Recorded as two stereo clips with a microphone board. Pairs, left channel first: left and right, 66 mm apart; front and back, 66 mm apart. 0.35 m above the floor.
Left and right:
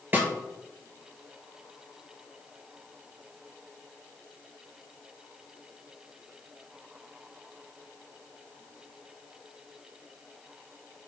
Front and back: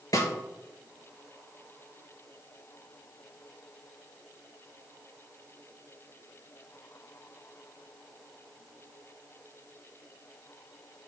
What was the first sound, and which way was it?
A snare drum, 25° right.